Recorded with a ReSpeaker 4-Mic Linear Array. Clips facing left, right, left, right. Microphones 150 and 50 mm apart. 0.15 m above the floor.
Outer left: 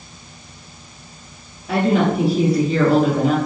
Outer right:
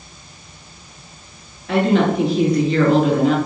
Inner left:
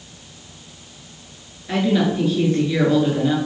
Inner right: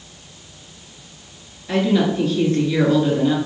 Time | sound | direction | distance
1.7 | a woman speaking | 5° left (ahead or behind) | 1.9 m